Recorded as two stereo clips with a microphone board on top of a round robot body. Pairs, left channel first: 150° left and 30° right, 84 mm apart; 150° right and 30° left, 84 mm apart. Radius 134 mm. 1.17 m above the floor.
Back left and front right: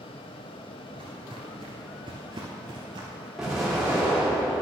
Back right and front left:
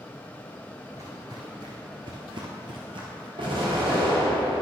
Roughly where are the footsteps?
Ahead.